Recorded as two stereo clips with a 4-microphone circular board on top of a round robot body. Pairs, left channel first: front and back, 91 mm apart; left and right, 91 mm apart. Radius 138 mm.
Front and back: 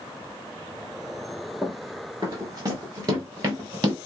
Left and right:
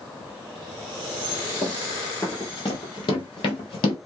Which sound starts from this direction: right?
Running footsteps, at 1.6 s.